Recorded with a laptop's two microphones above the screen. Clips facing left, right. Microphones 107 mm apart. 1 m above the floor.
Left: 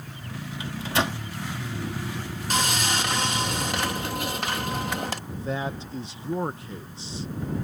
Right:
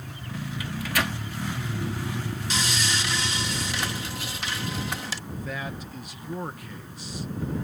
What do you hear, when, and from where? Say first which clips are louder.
0.6 s a microwave: left 3 dB; 25° left (ahead or behind)
2.5 s sawing: left 5 dB; 50° left (ahead or behind)
5.3 s a man speaking: left 2 dB; 25° left (ahead or behind)